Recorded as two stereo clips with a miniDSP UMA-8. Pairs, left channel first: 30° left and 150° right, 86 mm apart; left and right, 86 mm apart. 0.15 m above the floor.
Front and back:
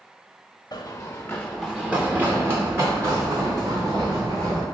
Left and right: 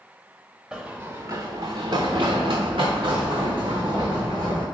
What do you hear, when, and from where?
0.7 s running footsteps: 5° right, 0.8 m; by 4.7 s 105° right, 3 m